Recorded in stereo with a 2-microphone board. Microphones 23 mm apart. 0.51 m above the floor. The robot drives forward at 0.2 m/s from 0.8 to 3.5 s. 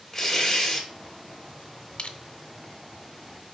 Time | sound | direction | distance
0.1 | tearing paper | 10° left (ahead or behind) | 1.3 m
2.0 | crushing | 55° left (ahead or behind) | 0.6 m